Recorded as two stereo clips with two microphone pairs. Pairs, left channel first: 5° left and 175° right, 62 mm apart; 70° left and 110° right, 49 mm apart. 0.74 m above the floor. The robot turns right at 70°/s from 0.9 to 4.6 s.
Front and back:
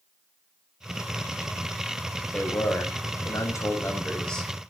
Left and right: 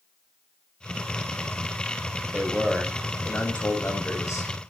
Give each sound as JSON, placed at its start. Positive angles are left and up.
{"t": 2.3, "sound": "a man speaking", "azimuth_deg": -60, "distance_m": 4.5}